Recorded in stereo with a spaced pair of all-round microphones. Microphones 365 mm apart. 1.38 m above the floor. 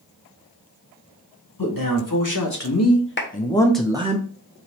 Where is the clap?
30° left (ahead or behind), 0.9 m.